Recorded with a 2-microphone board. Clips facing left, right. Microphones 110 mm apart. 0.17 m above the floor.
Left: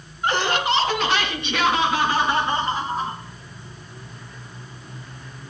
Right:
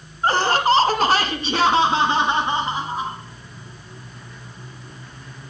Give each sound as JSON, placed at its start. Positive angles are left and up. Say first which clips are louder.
{"t": 0.2, "sound": "laughter", "louder": "right 4 dB", "side_deg": -35, "distance_m": 1.5}